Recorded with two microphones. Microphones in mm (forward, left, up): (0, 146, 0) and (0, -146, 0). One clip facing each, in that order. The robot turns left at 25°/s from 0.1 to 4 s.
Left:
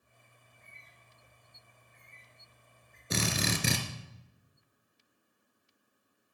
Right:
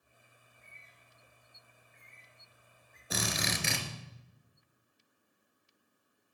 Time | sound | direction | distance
0.4 | a bird | 85° left | 6.5 m
3.1 | a drill | 30° left (ahead or behind) | 2 m